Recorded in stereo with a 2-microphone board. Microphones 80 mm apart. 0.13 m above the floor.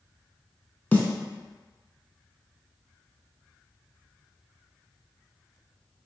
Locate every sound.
0.9 s a snare drum: 20° left (ahead or behind), 0.6 m